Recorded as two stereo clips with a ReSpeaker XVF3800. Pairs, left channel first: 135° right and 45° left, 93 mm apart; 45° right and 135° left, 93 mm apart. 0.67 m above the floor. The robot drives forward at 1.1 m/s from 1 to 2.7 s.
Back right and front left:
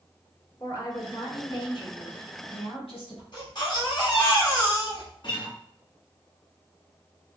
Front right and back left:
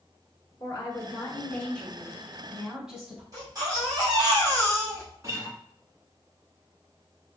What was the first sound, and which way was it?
A woman speaking, 90° right.